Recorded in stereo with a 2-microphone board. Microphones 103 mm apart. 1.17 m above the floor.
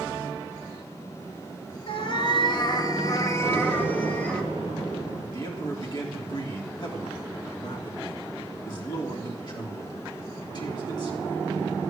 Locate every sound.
1.9 s a cat meowing: 60° left (ahead or behind), 1.8 m; by 4.4 s 10° left (ahead or behind), 1.8 m
3.4 s an explosion: 85° left, 9.5 m
5.3 s a man speaking: 45° left (ahead or behind), 3 m